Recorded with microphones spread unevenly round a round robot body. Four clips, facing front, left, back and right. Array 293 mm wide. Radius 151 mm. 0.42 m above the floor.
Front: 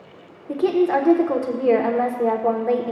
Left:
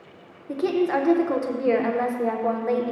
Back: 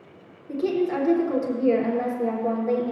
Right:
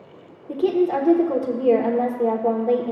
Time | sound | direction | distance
0.5 | a woman speaking | 35° right | 1.1 m